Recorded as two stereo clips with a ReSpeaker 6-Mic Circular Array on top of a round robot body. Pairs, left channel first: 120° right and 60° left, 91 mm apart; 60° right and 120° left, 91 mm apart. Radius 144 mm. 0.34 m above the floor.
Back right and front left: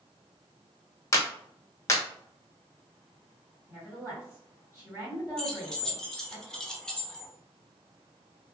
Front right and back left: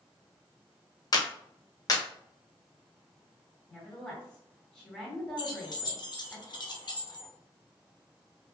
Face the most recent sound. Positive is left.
turn(degrees=-40)